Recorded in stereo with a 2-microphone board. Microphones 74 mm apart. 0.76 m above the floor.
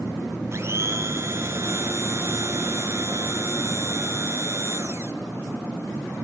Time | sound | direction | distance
0.5 | a blender | 40° right (ahead or behind) | 2.5 m